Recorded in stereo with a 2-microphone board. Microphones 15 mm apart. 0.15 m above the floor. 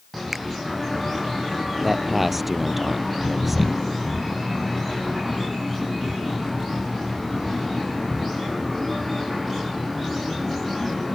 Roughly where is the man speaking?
Centre.